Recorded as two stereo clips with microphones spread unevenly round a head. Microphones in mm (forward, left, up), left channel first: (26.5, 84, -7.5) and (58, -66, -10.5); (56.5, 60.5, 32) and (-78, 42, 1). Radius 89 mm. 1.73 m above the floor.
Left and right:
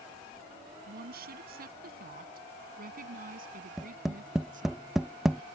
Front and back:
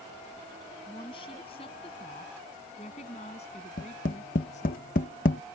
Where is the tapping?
10° left.